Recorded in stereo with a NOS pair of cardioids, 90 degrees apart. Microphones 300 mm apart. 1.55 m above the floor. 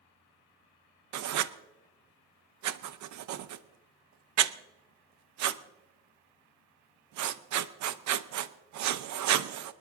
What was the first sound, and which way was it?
Writing, 70° right.